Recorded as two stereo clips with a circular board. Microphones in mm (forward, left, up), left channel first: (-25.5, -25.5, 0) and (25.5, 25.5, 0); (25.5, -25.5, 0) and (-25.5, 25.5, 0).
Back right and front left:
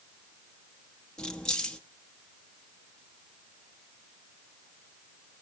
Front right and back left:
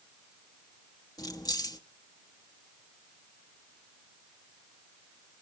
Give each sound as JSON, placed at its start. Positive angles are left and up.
{"t": 1.2, "sound": "keys jangling", "azimuth_deg": -60, "distance_m": 0.8}